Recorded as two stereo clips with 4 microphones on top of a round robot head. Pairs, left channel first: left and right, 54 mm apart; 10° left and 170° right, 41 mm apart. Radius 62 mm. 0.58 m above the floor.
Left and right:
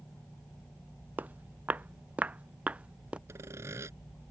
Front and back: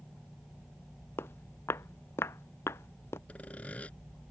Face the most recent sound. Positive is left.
turn(degrees=-50)